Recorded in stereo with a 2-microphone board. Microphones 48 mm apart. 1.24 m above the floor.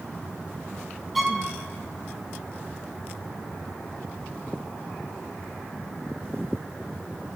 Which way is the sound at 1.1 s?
5° right (ahead or behind).